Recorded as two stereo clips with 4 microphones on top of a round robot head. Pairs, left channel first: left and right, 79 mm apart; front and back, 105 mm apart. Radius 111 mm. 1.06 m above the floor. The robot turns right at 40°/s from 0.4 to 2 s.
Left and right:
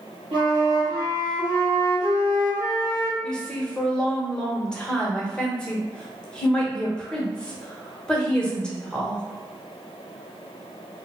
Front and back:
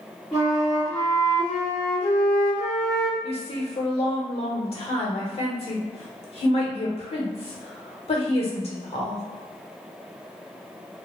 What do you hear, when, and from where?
0.3 s a flute: 90° right, 0.9 m; by 3.1 s 25° right, 0.9 m
3.2 s a woman speaking: 10° left, 1.1 m